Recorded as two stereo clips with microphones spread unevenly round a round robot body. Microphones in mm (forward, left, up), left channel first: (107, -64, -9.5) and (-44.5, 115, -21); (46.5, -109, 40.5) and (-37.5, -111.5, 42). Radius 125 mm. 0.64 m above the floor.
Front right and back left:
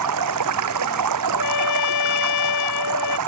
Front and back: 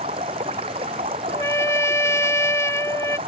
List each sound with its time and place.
0.0 s running water: 135° left
1.3 s a trumpet: 55° right